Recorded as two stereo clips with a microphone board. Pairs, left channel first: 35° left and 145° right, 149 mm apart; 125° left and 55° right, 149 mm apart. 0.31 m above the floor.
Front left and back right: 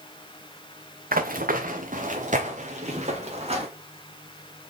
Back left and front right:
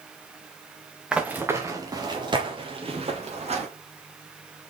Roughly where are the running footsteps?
Behind right.